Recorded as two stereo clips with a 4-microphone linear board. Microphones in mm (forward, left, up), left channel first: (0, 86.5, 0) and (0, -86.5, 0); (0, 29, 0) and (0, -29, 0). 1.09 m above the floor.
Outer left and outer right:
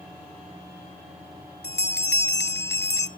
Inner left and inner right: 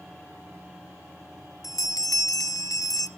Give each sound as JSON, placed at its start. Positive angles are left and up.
{"t": 1.6, "sound": "a bell", "side_deg": 75, "distance_m": 0.6}